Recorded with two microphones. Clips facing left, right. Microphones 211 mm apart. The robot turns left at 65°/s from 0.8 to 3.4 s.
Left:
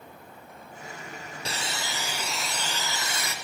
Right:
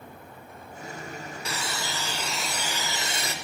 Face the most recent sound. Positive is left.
turn(degrees=-65)